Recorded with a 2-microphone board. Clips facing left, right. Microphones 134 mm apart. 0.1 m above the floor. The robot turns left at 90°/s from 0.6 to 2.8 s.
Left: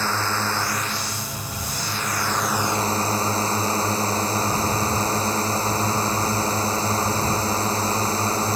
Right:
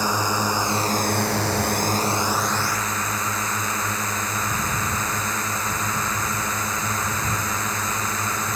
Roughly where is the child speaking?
I don't hear a child speaking.